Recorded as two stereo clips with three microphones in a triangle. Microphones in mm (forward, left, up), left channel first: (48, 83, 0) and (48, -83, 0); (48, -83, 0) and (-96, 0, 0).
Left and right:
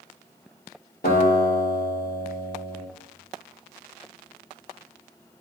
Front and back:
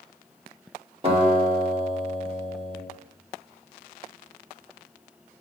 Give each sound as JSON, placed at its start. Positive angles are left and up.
{"t": 1.0, "sound": "a guitar", "azimuth_deg": 100, "distance_m": 5.0}